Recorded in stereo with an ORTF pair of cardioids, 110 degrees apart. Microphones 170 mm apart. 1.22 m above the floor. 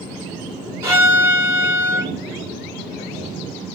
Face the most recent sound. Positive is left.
turn(degrees=-20)